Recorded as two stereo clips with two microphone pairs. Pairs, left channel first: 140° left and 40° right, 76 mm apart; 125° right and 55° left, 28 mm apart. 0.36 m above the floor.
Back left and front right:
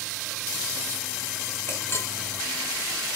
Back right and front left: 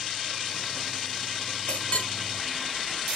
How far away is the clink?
About 1.0 m.